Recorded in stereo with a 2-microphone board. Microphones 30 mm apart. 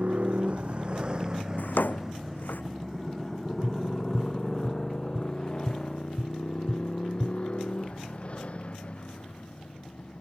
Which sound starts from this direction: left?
A drawer, at 1.6 s.